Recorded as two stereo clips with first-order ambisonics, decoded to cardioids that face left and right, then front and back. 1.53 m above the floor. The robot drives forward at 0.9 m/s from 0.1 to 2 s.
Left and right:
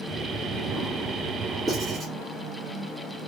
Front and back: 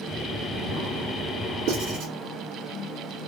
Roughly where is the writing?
Behind.